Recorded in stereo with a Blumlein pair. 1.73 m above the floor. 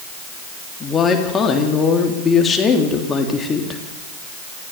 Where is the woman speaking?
20° left, 3.5 m.